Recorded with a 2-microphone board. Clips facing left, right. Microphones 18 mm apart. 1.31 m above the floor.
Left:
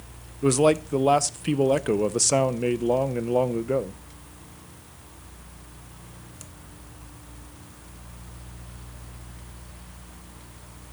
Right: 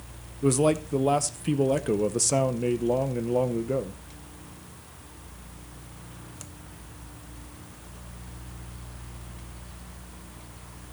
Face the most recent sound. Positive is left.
turn(degrees=30)  # may be behind; listen again after turning